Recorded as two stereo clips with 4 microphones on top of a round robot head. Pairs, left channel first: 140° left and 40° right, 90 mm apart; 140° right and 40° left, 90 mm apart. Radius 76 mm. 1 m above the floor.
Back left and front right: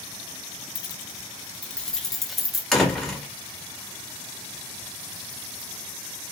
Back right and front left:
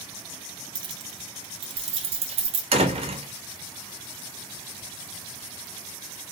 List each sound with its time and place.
0.8 s keys jangling: 85° left, 0.6 m; by 2.6 s 45° left, 1.4 m
2.7 s a door slam: 50° left, 1.9 m